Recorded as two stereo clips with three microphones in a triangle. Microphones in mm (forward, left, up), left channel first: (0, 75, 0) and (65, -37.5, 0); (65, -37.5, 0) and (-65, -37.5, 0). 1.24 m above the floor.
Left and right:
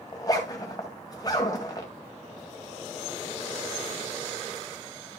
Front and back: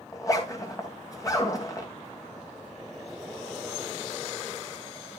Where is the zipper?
60° left, 2 m.